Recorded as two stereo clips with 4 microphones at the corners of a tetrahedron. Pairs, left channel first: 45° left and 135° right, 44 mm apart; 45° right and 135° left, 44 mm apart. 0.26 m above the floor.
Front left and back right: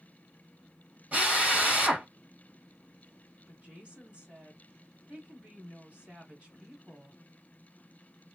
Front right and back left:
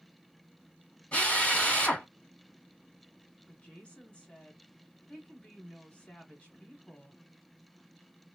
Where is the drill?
85° right, 1.6 m.